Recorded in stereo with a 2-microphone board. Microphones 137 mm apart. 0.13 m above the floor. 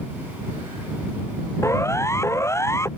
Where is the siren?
20° left (ahead or behind).